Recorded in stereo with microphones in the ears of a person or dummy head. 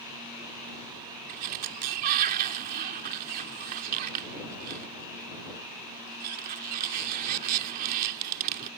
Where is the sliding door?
50° right (ahead or behind).